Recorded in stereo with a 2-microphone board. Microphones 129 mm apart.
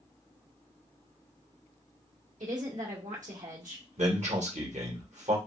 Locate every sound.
2.4 s a woman speaking: 80° right, 1.5 m
4.0 s a man speaking: 65° right (ahead or behind), 1.3 m